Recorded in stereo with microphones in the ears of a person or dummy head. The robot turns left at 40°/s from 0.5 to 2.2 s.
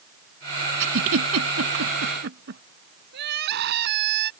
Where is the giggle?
70° right (ahead or behind); by 2.6 s 55° right (ahead or behind).